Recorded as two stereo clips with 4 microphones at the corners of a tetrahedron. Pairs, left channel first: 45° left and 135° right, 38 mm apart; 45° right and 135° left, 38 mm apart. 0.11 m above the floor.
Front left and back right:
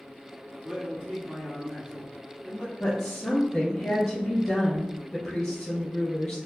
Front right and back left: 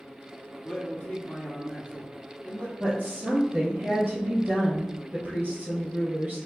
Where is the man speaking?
65° right, 1.4 m.